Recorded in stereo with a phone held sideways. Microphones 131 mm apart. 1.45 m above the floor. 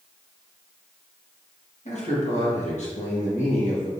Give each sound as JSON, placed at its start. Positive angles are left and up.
{"t": 1.9, "sound": "a man speaking", "side_deg": 60, "distance_m": 1.5}